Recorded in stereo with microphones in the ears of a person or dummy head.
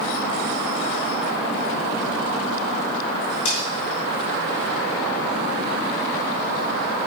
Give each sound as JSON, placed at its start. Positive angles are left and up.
{"t": 3.5, "sound": "cutlery clinking", "side_deg": 45, "distance_m": 3.0}